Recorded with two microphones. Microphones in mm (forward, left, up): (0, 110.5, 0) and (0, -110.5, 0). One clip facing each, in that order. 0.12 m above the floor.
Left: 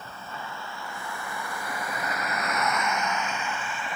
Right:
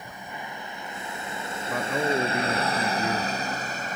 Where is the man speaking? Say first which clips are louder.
Right 11 dB; 80° right.